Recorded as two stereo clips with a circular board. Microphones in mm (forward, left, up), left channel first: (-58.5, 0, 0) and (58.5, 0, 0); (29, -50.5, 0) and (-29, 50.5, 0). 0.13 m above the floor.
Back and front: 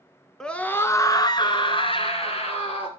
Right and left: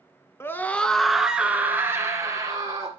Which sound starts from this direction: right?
A scream, at 0.4 s.